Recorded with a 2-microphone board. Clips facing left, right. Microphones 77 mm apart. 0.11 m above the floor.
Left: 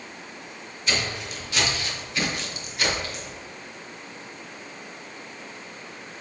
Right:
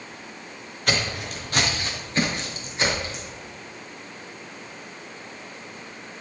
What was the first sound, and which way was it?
Footsteps, 55° right (ahead or behind).